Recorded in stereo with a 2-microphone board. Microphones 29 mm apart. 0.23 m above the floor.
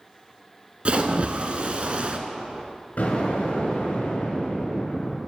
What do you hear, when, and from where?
0.8 s a splash: 40° right (ahead or behind), 0.8 m
3.0 s an explosion: 60° left (ahead or behind), 3 m